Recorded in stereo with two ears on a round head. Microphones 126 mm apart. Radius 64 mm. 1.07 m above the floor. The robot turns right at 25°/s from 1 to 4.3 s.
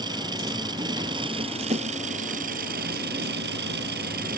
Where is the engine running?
150° right; by 4.4 s 65° right.